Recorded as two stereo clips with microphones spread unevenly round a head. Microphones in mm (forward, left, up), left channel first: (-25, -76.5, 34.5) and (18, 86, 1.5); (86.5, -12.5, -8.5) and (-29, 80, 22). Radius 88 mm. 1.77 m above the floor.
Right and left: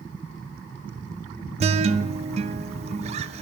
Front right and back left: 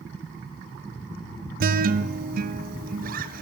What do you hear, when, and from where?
1.6 s a guitar: 135° left, 0.6 m